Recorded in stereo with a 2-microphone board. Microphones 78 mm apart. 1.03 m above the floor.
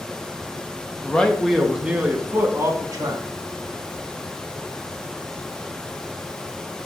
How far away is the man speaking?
About 1.6 m.